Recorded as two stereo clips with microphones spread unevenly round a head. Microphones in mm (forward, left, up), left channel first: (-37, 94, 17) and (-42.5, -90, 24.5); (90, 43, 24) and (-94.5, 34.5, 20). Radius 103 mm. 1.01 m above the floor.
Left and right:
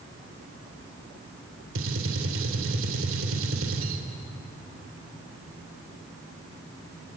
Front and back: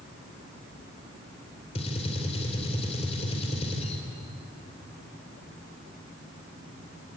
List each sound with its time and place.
1.8 s a gunshot: 60° right, 2.5 m